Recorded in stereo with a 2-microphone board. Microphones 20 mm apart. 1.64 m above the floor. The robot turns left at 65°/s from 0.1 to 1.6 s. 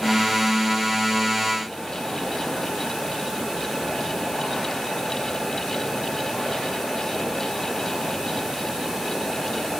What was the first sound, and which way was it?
Only background noise.